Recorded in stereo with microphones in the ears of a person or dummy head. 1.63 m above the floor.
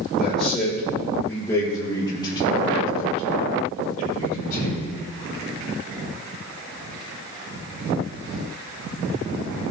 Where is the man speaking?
5° right (ahead or behind), 5 m; by 4.9 s 50° left (ahead or behind), 7.5 m.